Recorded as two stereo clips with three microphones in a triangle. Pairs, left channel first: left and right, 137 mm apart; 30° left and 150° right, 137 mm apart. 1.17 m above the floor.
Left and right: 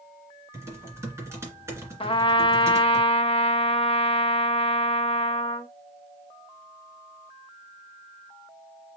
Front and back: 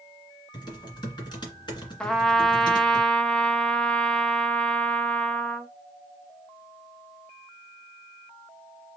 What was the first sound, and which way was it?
Typing on a keyboard, 25° right.